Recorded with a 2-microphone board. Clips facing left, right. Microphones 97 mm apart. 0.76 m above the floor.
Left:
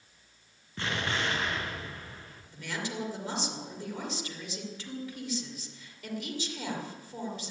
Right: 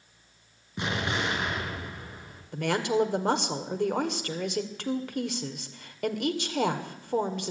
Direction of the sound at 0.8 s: 15° right (ahead or behind).